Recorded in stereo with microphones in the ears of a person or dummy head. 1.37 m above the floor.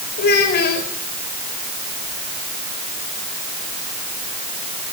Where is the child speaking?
60° left (ahead or behind), 4.5 m.